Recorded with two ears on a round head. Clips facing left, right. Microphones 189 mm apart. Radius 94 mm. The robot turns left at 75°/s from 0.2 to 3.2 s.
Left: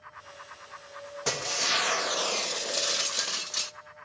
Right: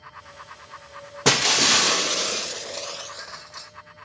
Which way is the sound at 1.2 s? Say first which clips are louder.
Right 11 dB; 80° right.